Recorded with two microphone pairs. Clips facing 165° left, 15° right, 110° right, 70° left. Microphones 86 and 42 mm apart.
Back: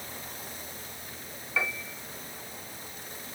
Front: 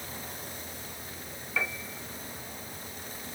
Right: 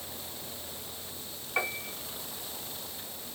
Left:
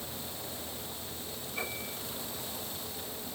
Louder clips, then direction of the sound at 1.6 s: Back 2 dB, right 7 dB; 105° right.